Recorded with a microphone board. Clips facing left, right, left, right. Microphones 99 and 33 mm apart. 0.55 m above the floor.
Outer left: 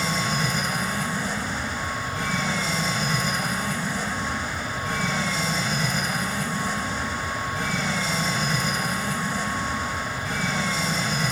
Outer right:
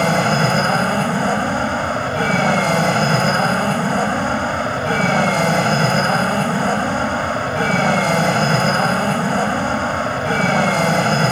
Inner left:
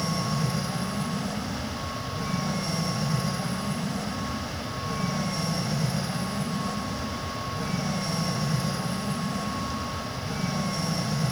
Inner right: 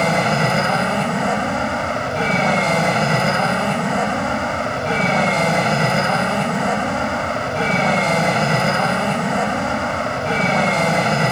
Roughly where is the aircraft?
Right.